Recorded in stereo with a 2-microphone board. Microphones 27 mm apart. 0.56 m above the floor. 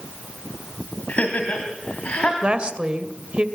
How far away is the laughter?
About 3 m.